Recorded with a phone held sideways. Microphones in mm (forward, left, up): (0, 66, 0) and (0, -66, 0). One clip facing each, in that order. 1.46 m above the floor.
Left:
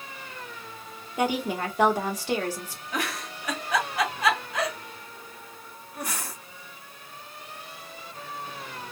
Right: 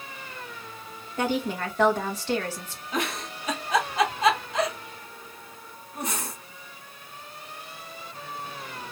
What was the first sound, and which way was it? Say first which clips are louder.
A woman speaking: left 1 dB; 10° left (ahead or behind).